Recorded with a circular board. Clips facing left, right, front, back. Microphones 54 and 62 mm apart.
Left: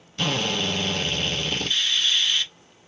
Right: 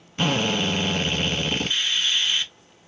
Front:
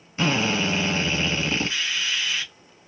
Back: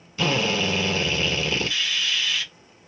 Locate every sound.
0.2 s a drill: 45° right, 1.1 m